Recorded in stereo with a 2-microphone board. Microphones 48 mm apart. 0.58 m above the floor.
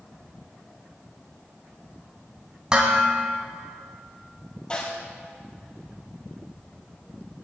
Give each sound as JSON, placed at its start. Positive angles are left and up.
{"t": 2.7, "sound": "dishes clattering", "side_deg": -20, "distance_m": 3.0}
{"t": 4.7, "sound": "a snare drum", "side_deg": 25, "distance_m": 7.5}